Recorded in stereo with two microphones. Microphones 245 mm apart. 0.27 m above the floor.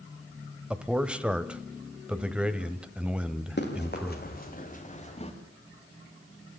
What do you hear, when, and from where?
0.7 s a man speaking: 5° right (ahead or behind), 1.0 m
3.6 s running footsteps: 45° left (ahead or behind), 4 m; by 5.3 s 25° left (ahead or behind), 3.5 m